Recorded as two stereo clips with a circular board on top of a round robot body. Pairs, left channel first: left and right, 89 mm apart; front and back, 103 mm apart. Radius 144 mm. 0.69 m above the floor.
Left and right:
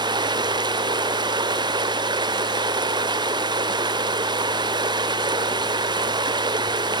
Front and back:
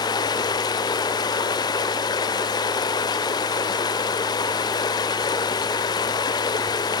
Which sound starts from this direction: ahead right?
Running water, at 0.0 s.